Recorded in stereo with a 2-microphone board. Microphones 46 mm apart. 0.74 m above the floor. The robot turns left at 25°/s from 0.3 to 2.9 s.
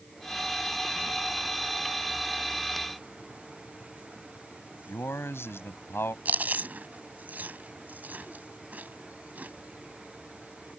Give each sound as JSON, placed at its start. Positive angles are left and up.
{"t": 4.9, "sound": "a man speaking", "side_deg": 60}
{"t": 6.2, "sound": "chewing", "side_deg": -40}